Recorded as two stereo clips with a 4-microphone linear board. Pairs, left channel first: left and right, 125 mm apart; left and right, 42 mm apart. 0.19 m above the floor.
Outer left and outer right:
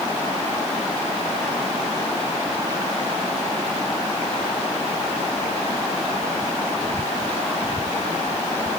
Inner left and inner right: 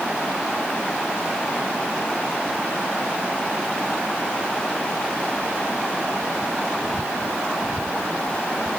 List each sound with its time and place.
Only background noise.